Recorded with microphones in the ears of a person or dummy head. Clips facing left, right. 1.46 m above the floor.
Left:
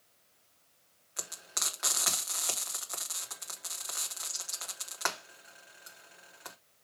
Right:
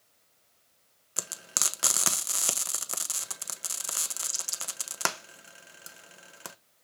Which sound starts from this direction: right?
Frying, at 1.2 s.